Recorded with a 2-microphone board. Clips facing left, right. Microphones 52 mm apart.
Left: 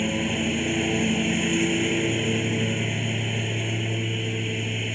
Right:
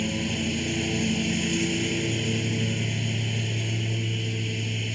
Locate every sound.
0.0 s a lawn mower: 25° left (ahead or behind)